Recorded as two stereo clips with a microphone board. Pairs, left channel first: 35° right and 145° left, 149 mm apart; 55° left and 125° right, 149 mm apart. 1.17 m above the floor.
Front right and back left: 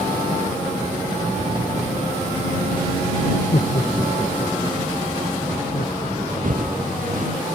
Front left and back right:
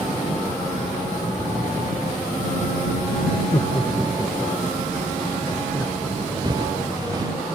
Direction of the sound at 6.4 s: 175° left.